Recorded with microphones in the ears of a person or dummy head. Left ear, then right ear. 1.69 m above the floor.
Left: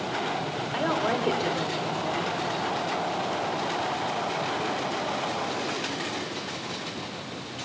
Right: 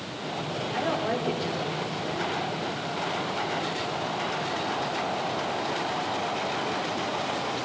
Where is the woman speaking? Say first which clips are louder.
Left 2 dB; 40° left (ahead or behind), 4.5 m.